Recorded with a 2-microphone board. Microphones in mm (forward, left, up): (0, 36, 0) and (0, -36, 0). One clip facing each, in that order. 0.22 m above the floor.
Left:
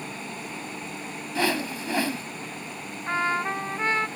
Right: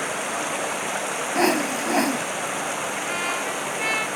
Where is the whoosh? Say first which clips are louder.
Right 5 dB; 20° right (ahead or behind).